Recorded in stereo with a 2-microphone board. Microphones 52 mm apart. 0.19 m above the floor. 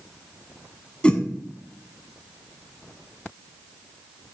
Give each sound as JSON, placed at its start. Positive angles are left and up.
{"t": 1.0, "sound": "a whoosh", "side_deg": 20, "distance_m": 0.9}